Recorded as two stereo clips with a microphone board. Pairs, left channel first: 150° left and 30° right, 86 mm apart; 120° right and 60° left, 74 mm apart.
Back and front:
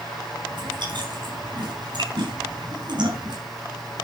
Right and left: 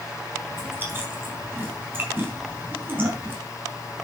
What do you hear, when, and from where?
0.5 s chewing: straight ahead, 5 m